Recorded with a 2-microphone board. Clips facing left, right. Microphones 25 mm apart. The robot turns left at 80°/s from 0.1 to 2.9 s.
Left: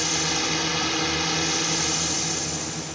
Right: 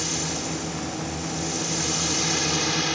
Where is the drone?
160° left; by 3.0 s 65° right.